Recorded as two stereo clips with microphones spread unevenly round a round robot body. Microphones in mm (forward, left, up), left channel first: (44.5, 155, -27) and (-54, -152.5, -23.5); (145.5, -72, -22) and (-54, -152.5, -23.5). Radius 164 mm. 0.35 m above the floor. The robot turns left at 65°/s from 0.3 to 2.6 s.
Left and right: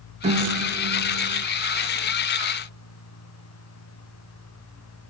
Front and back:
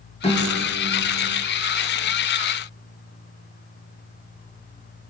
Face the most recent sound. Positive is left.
turn(degrees=170)